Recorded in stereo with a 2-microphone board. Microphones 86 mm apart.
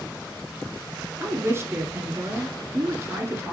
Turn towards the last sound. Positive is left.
turn(degrees=-30)  # may be behind; listen again after turning